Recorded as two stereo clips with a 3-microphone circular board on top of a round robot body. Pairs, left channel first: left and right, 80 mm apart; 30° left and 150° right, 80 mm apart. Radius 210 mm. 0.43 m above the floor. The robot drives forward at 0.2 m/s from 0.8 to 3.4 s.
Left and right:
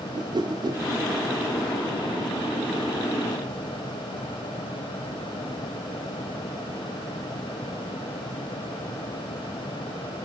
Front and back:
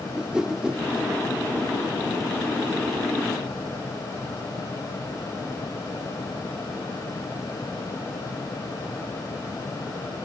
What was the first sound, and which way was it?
A whoosh, 70° right.